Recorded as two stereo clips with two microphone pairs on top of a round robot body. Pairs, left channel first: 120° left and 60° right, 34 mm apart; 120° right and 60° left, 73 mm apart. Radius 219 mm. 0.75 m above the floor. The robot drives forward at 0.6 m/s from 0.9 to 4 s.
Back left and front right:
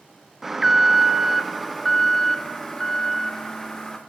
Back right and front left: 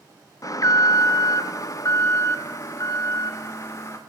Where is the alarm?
135° right, 1.6 m; by 4.0 s 160° right, 3 m.